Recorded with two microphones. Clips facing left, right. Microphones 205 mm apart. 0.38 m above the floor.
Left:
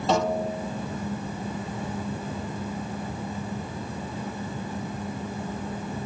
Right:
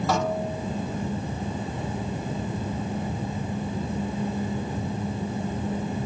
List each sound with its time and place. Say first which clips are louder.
0.1 s a snare drum: left 4 dB; 25° left (ahead or behind), 4 m